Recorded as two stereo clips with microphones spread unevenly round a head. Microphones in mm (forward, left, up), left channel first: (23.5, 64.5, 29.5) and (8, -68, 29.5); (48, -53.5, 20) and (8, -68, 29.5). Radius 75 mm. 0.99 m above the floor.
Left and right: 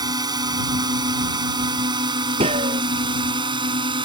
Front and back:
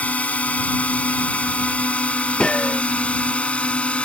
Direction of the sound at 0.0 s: 35° right.